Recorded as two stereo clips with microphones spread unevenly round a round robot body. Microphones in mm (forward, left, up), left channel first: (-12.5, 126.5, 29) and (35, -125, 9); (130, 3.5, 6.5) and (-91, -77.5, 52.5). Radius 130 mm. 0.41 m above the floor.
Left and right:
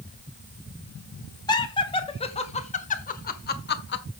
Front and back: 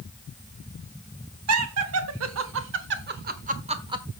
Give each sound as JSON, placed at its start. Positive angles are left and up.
{"t": 1.5, "sound": "laughter", "azimuth_deg": 175, "distance_m": 2.5}